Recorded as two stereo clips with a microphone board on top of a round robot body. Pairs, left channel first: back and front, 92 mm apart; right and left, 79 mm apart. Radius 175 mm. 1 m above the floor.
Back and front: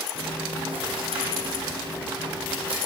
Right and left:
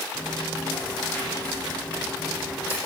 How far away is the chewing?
About 7.5 m.